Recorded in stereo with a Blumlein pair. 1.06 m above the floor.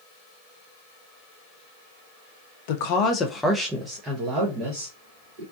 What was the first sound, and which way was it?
A woman speaking, 50° left.